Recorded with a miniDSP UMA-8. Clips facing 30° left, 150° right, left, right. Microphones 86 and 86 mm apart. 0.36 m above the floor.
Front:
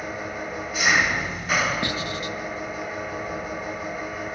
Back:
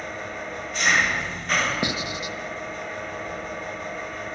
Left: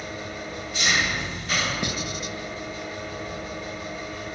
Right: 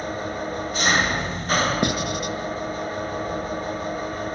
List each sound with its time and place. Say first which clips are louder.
0.0 s an engine running: front 2 dB, right 6 dB; 50° right, 1.2 m
1.8 s writing: even, right 7 dB; 80° right, 1.4 m